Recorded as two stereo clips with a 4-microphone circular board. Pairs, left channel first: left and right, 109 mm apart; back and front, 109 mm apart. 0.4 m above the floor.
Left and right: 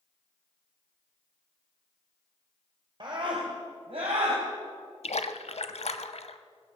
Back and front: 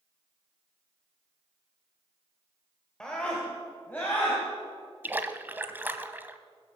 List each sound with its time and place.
3.0 s a scream: 100° right, 1.7 m; by 4.4 s 105° right, 3 m
5.0 s a splash: 70° left, 0.7 m